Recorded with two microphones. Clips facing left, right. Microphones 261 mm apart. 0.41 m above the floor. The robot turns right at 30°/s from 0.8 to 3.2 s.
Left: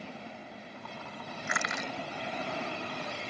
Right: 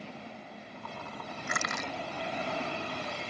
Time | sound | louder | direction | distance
1.5 | crushing | even | 40° right (ahead or behind) | ?